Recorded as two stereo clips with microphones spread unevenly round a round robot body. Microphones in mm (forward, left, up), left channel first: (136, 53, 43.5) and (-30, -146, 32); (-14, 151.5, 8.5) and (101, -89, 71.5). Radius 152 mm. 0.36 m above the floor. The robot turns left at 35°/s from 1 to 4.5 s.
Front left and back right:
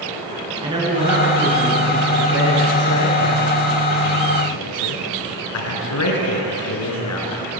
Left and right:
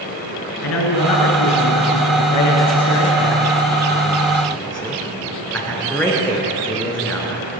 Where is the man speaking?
155° left, 4.5 m; by 7.5 s 30° left, 4.5 m.